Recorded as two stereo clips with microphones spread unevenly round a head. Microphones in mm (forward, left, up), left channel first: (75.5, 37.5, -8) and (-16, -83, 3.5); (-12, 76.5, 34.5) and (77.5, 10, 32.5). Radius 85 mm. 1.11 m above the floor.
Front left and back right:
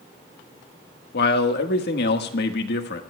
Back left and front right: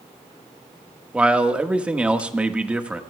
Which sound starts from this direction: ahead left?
A man speaking, at 1.1 s.